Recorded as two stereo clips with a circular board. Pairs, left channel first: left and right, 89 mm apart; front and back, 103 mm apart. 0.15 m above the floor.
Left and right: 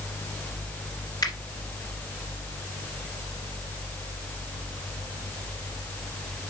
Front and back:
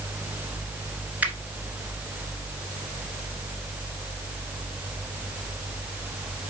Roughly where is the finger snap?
Left.